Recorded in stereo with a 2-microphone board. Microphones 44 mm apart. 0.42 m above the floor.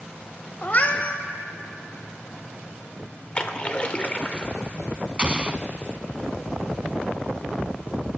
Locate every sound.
0.6 s a cat meowing: 40° left (ahead or behind), 0.7 m
3.4 s a splash: 25° left (ahead or behind), 0.7 m
5.2 s an explosion: 25° right (ahead or behind), 0.5 m